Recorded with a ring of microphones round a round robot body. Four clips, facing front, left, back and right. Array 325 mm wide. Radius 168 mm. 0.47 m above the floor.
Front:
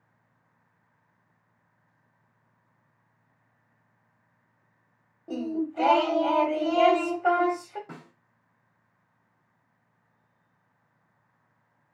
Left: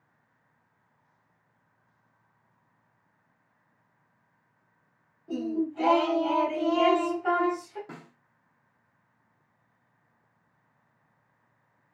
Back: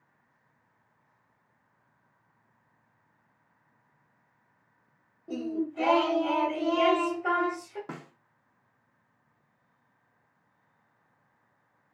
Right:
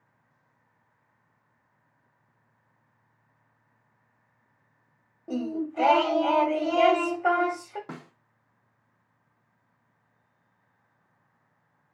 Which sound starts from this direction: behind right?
A snare drum, at 7.9 s.